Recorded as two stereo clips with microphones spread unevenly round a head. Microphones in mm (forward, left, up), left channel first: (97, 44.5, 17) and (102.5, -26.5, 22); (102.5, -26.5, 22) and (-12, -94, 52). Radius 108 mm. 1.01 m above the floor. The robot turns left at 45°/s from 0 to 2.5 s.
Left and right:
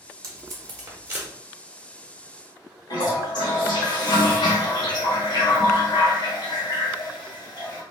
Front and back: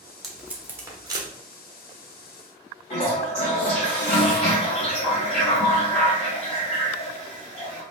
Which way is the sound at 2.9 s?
80° left.